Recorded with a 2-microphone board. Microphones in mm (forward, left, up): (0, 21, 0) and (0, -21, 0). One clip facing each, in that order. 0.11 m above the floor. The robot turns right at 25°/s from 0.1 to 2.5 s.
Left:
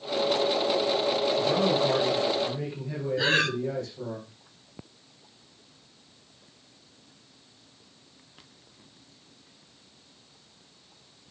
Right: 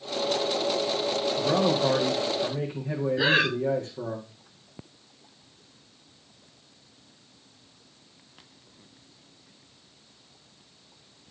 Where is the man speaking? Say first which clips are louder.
Right 3 dB; 65° right (ahead or behind), 5.5 m; by 4.2 s 40° right (ahead or behind), 5.5 m.